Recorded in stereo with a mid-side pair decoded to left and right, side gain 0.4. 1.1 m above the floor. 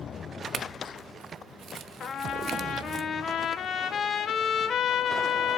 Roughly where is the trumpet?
Ahead left.